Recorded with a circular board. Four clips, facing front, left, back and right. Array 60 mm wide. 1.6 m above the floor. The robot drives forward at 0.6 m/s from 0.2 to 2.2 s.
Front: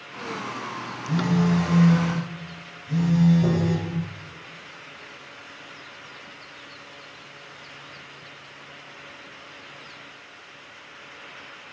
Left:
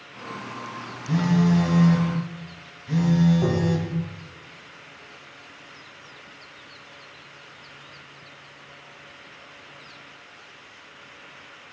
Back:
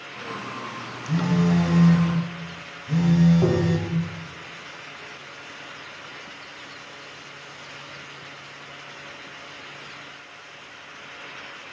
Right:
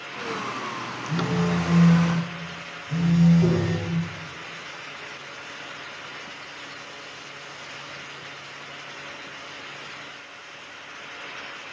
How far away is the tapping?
About 1.0 m.